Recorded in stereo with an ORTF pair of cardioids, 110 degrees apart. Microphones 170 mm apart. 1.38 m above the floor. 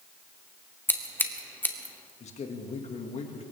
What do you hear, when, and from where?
0.9 s scissors: 10° left, 1.6 m
2.2 s a man speaking: 40° left, 2.5 m